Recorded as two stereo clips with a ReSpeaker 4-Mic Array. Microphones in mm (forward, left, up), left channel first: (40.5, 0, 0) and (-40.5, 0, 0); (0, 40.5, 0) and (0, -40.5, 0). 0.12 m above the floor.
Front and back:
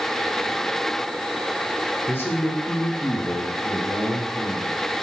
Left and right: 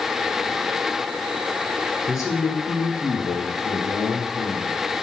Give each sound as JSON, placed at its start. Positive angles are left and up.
{"t": 2.1, "sound": "a man speaking", "azimuth_deg": 55, "distance_m": 2.0}